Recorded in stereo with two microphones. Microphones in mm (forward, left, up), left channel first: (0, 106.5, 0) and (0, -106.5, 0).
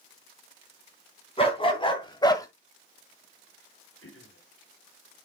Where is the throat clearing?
80° left, 2 m.